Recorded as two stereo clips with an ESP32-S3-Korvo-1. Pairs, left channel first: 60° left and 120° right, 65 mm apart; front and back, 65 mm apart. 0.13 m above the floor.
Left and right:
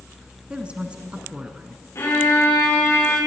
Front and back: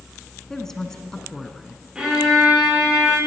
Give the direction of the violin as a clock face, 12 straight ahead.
9 o'clock.